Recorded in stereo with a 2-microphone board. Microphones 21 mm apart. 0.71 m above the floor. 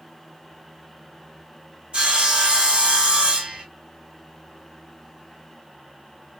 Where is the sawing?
70° right (ahead or behind), 3 m.